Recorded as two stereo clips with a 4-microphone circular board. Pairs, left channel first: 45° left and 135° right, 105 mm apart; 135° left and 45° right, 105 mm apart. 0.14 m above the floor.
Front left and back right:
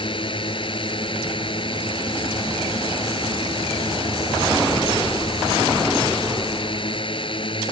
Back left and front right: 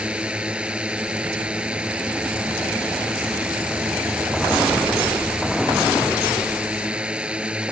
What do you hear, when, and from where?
0.0 s a drone: 30° left